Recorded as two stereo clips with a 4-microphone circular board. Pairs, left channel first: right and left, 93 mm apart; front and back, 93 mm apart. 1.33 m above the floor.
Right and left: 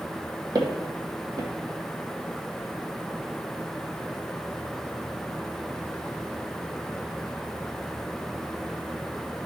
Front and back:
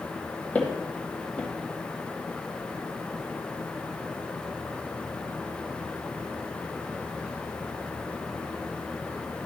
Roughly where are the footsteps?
Left.